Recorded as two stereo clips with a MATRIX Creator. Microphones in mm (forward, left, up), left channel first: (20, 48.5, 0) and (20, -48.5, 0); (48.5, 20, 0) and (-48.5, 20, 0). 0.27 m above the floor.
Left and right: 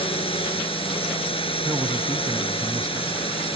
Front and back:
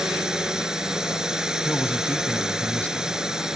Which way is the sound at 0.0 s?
95° left.